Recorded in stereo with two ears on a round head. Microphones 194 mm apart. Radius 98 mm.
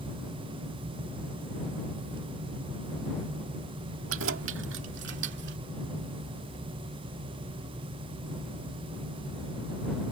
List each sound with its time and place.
4.1 s keys jangling: 65° right (ahead or behind); by 5.6 s 50° right (ahead or behind)